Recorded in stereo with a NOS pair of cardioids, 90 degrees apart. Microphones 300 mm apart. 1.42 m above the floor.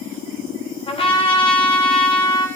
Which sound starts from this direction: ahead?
A trumpet, at 0.9 s.